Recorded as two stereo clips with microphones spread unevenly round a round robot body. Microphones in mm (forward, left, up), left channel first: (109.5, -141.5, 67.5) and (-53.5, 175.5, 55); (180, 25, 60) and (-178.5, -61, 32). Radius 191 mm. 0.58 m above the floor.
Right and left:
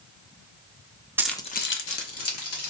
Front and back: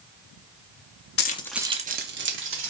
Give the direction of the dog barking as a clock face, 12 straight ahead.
I don't hear a dog barking.